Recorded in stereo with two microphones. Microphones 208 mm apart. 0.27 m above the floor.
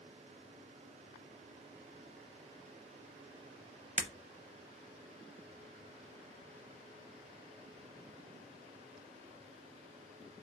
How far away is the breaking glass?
About 0.5 m.